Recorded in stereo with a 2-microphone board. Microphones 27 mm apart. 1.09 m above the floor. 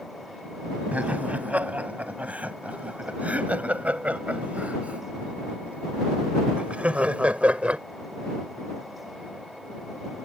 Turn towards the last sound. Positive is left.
turn(degrees=-55)  # may be behind; listen again after turning